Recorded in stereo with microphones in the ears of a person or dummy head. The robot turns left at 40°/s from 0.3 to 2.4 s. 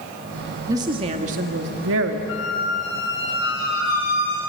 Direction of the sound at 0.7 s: 20° right.